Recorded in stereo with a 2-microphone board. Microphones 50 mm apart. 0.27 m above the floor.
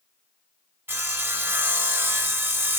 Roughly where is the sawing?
Right.